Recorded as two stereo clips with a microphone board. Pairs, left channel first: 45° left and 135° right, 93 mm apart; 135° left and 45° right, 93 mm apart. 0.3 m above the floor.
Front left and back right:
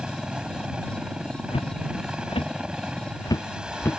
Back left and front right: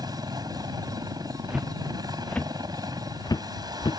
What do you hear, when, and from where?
0.0 s a helicopter: 60° right
1.5 s footsteps: 35° left; by 4.0 s 110° left